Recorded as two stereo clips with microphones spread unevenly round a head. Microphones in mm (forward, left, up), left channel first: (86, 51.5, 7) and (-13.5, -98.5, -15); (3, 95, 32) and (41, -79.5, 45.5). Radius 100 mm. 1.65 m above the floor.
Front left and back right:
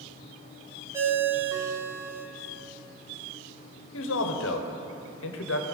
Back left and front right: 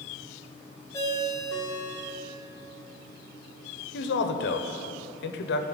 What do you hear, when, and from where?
0.9 s a ringtone: 165° left, 0.9 m
3.9 s a man speaking: 75° left, 0.9 m